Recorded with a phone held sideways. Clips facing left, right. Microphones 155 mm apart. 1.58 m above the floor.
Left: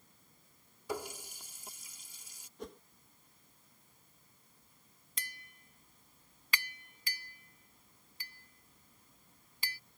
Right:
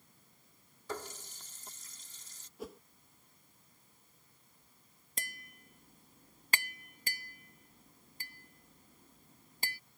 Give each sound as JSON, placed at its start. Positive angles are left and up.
{"t": 0.9, "sound": "a running tap", "side_deg": 10}
{"t": 2.6, "sound": "a whoosh", "side_deg": -5}
{"t": 5.2, "sound": "tapping", "side_deg": -50}